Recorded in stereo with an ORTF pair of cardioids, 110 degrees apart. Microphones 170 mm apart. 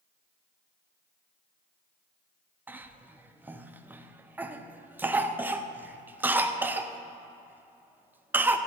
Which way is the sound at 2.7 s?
10° right.